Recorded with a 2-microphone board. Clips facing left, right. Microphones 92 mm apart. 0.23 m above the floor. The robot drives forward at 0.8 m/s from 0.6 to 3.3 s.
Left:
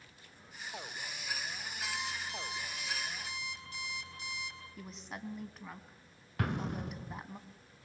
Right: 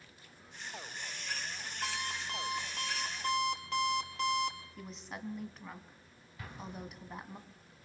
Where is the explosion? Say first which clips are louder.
Left 9 dB; 80° left, 0.7 m.